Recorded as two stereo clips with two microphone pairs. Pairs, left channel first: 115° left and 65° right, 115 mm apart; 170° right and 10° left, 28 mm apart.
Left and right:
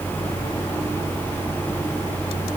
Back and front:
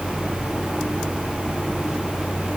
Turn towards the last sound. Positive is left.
No sound to turn to.